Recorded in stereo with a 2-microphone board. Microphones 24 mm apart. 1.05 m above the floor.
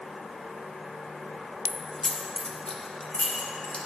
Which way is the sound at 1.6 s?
5° left (ahead or behind).